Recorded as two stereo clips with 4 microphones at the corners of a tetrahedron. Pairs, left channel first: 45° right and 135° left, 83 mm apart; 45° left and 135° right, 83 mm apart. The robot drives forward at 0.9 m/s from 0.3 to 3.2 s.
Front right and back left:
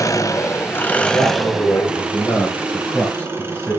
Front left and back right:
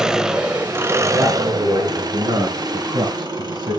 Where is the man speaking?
80° right, 3 m; by 3.8 s 115° right, 3.5 m.